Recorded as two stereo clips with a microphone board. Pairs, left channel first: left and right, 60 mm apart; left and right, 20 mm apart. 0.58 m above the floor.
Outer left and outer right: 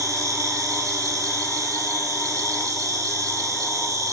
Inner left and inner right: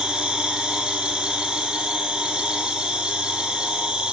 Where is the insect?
75° right (ahead or behind), 1.4 m.